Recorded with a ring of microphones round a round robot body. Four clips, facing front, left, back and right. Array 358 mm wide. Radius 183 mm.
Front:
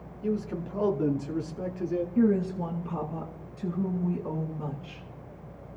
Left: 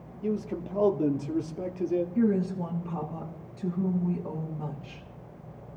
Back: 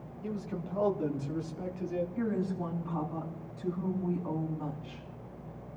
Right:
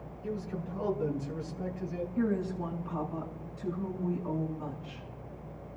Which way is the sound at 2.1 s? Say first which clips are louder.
Left 1 dB, front 8 dB; 50° left.